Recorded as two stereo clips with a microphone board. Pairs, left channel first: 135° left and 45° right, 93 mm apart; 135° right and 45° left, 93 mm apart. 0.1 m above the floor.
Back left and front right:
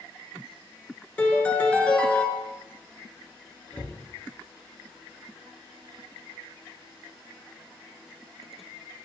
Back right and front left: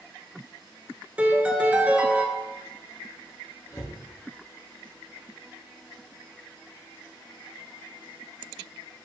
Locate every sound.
1.2 s a piano: 90° left, 0.5 m
3.7 s a cupboard door: 160° right, 0.9 m